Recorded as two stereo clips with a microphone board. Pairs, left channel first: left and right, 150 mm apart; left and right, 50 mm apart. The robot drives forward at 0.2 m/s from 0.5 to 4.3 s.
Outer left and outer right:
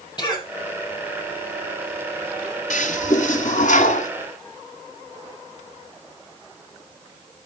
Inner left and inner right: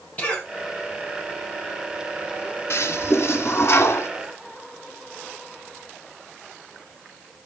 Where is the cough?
30° left (ahead or behind), 7.5 m.